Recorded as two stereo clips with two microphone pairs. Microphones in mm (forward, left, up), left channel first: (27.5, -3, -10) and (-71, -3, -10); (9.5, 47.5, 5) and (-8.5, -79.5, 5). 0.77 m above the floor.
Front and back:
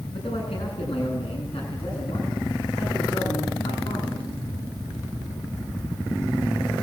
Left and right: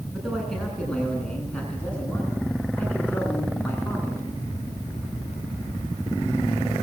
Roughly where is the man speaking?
Ahead.